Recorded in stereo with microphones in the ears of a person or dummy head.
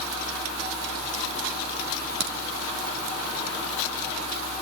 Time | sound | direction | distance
2.2 | a crack | 75° right (ahead or behind) | 2.5 m